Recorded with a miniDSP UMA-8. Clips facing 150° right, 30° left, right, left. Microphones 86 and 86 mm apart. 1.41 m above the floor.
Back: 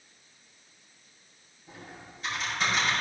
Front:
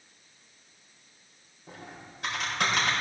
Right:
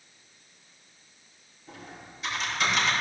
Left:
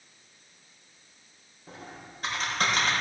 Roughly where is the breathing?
No breathing in this recording.